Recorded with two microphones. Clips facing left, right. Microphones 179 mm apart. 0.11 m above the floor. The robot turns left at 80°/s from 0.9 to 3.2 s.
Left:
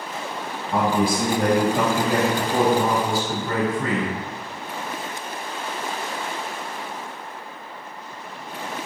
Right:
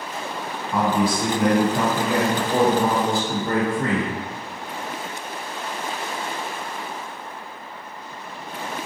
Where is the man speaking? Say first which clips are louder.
Even; 95° left, 1.6 m; by 4.2 s 90° right, 1.6 m.